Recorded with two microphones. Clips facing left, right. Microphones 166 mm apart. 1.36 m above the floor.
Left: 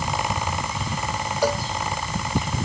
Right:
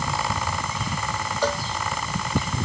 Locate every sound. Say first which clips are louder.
1.4 s a cowbell: left 3 dB; 10° left (ahead or behind)